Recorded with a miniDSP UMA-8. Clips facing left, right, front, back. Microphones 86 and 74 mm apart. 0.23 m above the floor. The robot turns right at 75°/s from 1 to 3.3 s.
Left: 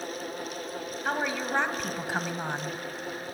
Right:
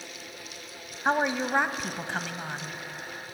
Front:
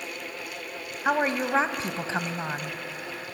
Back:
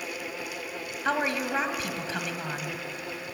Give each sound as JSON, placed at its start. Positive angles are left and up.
{"t": 1.1, "sound": "a woman speaking", "azimuth_deg": -65, "distance_m": 1.0}